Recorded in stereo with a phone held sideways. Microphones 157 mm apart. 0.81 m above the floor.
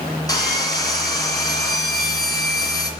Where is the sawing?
25° left (ahead or behind), 2.5 m.